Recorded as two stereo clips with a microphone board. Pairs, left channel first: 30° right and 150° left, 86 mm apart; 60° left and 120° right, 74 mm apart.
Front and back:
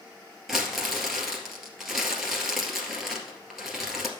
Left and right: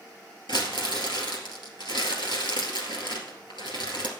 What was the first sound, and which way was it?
Crumpling, 60° left.